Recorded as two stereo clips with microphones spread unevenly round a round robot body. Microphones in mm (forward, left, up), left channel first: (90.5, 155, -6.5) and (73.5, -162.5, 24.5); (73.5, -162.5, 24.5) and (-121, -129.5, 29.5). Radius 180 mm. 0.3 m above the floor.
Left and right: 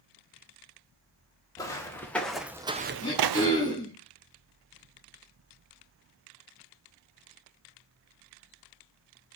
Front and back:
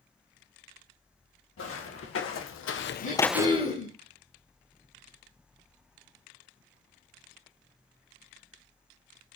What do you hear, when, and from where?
1.6 s footsteps: 5° left, 2.5 m; by 3.8 s 135° right, 1.0 m
3.0 s throat clearing: 15° left, 4 m